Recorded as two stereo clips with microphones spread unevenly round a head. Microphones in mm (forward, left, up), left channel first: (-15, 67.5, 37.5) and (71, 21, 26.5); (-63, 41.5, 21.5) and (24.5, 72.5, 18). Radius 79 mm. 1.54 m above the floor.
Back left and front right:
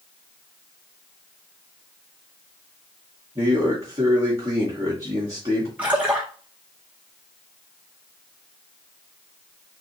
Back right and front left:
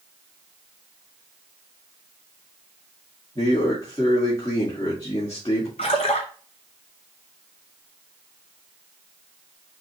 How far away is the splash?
About 0.6 m.